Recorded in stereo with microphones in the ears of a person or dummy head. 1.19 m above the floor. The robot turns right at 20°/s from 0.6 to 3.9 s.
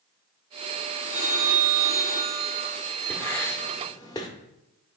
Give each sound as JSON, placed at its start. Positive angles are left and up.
{"t": 1.1, "sound": "a phone ringing", "azimuth_deg": 135, "distance_m": 4.0}
{"t": 3.1, "sound": "writing", "side_deg": 10, "distance_m": 1.4}